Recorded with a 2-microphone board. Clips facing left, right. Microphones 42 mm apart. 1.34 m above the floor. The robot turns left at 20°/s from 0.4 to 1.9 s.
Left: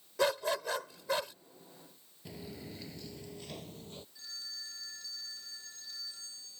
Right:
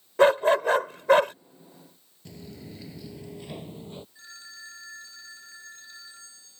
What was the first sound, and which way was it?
A dog barking, 45° right (ahead or behind).